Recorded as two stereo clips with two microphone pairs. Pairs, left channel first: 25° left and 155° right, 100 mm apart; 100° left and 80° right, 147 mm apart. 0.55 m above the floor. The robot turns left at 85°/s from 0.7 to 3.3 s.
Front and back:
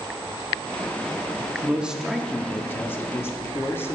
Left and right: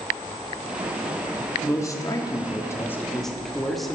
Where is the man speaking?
150° left, 0.6 m; by 4.0 s 10° left, 0.6 m.